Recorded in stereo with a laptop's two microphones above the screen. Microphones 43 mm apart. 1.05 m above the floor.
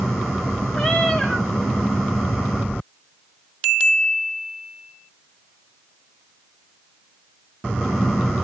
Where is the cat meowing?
25° left (ahead or behind), 1.5 m.